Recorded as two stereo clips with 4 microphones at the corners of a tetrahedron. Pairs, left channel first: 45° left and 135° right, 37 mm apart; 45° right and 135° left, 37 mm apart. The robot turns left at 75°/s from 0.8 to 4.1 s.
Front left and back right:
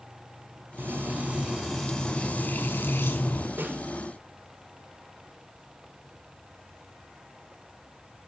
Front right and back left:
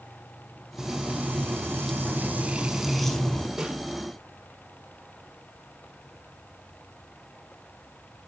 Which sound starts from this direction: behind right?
Frying, at 0.8 s.